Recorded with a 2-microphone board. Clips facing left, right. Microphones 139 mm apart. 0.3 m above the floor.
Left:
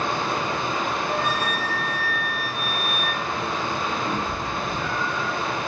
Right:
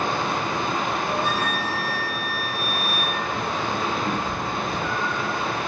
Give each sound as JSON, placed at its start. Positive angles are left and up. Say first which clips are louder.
{"t": 0.0, "sound": "running water", "louder": "right 1 dB", "side_deg": -60, "distance_m": 0.8}
{"t": 1.1, "sound": "a flute", "louder": "right 1 dB", "side_deg": -30, "distance_m": 1.0}
{"t": 4.0, "sound": "a cat meowing", "louder": "right 1 dB", "side_deg": -25, "distance_m": 1.2}